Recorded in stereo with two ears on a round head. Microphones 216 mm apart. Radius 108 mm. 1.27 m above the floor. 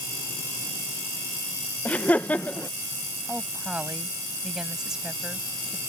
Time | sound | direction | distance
1.9 | laughter | 5° left (ahead or behind) | ?
3.3 | a woman speaking | 5° right (ahead or behind) | ?